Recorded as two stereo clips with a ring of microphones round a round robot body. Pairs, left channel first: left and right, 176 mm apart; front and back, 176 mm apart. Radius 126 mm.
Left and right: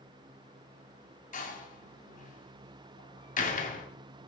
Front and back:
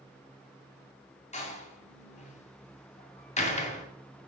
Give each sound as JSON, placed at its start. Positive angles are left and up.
{"t": 1.3, "sound": "a door slam", "azimuth_deg": 50, "distance_m": 2.5}